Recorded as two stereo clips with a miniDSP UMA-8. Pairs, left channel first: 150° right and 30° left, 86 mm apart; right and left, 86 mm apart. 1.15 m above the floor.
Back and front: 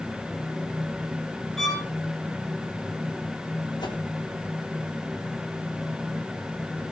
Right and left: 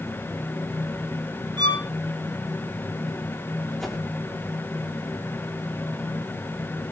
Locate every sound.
1.6 s a violin: 125° left, 5 m
3.8 s a whoosh: 175° right, 3 m